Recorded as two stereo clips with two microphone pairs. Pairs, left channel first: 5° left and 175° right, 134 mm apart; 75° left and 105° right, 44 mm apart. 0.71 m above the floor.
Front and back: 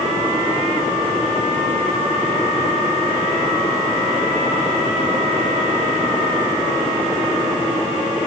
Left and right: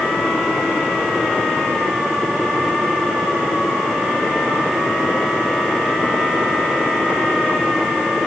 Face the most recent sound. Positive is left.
No sound to turn to.